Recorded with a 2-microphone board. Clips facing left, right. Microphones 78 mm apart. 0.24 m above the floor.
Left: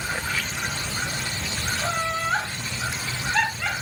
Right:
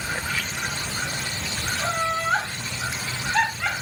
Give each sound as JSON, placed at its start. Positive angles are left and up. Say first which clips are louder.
{"t": 1.8, "sound": "laughter", "louder": "right 2 dB", "side_deg": -5, "distance_m": 1.0}